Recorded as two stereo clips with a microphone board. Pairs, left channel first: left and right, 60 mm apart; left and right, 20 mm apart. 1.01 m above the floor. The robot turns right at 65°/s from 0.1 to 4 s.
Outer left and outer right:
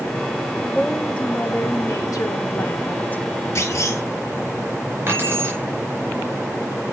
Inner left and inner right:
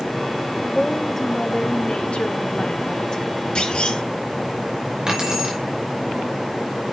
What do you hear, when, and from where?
0.8 s a woman speaking: 5° right, 1.1 m; by 3.2 s 155° left, 1.1 m
3.5 s a clunk: 60° left (ahead or behind), 2.5 m; by 4.0 s 90° left, 2.5 m
5.1 s keys jangling: 40° right (ahead or behind), 5 m